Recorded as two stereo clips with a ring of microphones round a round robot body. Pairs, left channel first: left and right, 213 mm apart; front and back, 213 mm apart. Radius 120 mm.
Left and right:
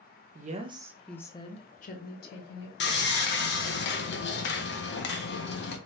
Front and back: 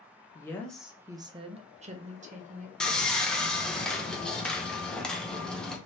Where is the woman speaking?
70° right, 0.6 m; by 2.7 s 125° left, 1.2 m.